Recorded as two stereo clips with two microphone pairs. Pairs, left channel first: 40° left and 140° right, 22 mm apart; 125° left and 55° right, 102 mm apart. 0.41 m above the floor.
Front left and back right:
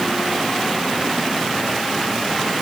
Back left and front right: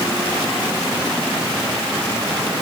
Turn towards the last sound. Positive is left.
No sound to turn to.